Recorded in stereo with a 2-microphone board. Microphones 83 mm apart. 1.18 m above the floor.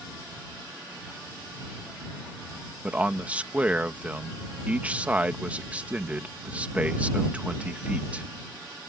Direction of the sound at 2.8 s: 15° right (ahead or behind).